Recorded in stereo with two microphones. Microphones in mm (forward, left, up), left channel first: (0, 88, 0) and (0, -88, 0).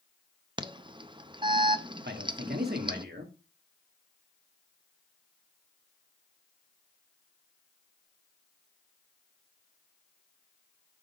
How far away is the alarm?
About 0.6 m.